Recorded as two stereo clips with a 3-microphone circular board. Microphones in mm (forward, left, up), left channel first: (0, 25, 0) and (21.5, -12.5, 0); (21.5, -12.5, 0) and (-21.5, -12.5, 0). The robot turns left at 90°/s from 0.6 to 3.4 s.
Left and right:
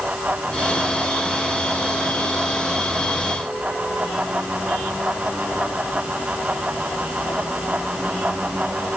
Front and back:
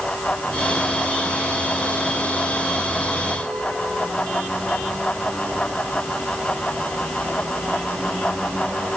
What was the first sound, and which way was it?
Only background noise.